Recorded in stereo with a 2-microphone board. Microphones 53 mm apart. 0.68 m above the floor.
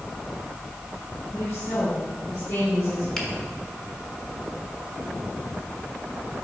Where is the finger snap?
15° left (ahead or behind), 1.3 m.